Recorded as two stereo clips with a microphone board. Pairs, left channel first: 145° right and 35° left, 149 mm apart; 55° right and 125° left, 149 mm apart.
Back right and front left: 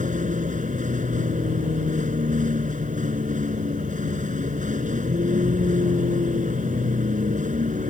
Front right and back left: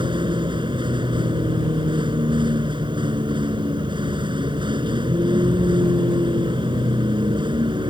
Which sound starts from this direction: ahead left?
A vehicle, at 0.0 s.